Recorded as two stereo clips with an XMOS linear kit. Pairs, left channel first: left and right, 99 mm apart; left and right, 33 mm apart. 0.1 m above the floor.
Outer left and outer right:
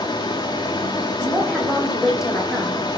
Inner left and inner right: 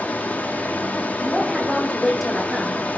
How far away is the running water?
About 3.5 m.